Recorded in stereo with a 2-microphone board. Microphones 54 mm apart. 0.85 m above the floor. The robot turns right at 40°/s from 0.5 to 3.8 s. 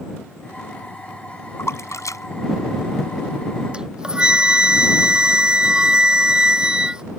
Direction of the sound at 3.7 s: 20° right (ahead or behind).